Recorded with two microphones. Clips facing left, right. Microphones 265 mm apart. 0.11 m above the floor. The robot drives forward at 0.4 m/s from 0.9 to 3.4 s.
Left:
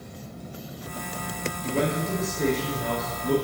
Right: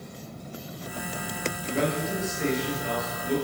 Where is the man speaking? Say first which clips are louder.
Left 2 dB; 35° left (ahead or behind), 1.8 m; by 3.4 s 40° left (ahead or behind), 1.6 m.